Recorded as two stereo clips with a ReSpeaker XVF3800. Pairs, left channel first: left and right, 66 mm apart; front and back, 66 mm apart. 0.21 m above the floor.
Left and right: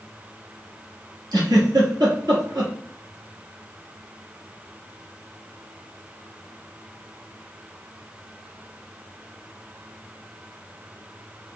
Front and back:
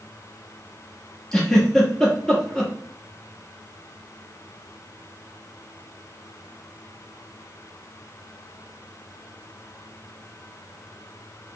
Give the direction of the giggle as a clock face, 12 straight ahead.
3 o'clock.